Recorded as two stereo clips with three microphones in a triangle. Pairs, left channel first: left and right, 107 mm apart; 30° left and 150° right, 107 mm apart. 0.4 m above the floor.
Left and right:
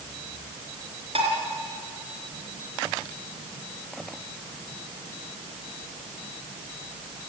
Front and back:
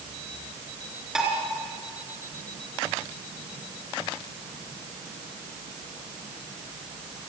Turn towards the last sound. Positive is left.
turn(degrees=-65)